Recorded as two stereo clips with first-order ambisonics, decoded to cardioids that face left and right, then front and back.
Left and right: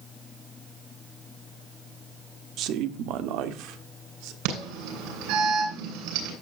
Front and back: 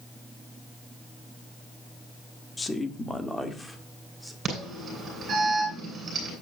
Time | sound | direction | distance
2.6 | a woman speaking | 75° right | 1.2 m
4.5 | an alarm | 110° right | 9.5 m